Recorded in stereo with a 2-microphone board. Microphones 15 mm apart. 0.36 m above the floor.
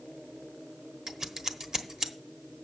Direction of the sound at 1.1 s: 40° right (ahead or behind).